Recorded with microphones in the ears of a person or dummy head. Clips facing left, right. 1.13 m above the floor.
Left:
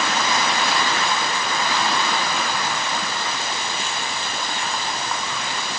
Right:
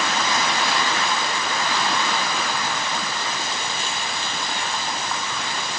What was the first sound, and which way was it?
Only background noise.